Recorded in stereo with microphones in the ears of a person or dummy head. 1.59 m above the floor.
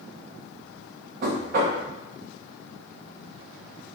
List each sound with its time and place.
1.2 s knocking: 55° right (ahead or behind), 1.1 m